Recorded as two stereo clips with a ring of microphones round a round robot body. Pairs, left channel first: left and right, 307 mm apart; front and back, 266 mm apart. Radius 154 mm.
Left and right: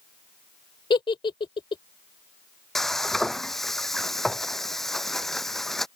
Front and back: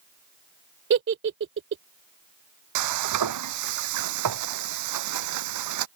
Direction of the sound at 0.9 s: 160° left.